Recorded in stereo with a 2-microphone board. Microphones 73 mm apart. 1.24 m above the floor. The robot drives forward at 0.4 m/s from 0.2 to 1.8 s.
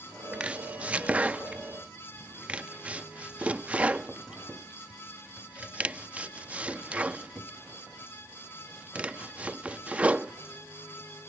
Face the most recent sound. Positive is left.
turn(degrees=-20)  # may be behind; listen again after turning